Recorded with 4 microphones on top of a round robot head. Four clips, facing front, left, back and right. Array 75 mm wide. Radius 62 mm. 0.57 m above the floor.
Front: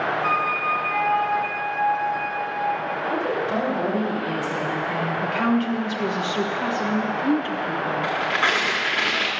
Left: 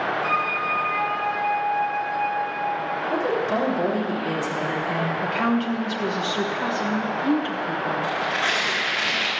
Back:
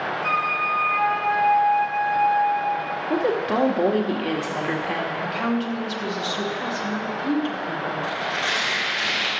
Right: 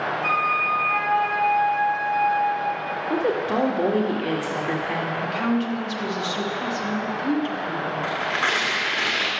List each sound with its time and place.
0.2 s a flute: 75° right, 2.5 m
3.1 s a woman speaking: 150° right, 2 m
5.2 s a woman speaking: 35° left, 1.0 m
8.0 s tearing paper: 25° right, 2 m